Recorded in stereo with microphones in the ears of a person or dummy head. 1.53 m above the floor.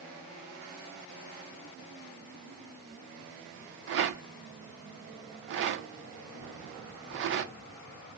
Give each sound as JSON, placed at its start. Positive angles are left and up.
{"t": 3.9, "sound": "a rattle", "side_deg": -60, "distance_m": 0.7}